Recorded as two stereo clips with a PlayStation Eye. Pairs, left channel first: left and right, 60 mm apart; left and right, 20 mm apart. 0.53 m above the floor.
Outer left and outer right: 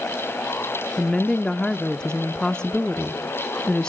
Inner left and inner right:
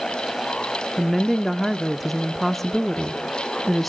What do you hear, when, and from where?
1.0 s a woman speaking: 10° left (ahead or behind), 0.7 m